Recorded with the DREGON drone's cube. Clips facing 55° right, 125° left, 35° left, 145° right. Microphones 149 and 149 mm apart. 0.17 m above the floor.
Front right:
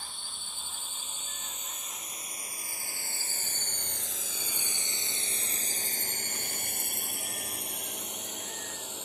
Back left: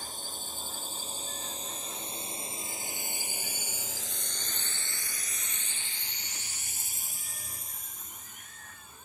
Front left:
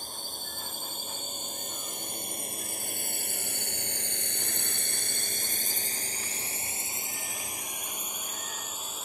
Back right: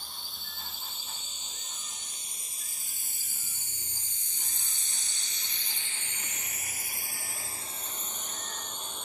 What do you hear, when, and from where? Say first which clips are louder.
0.0 s a drone: back left 5 dB, front left 6 dB; 75° left; by 9.1 s 50° right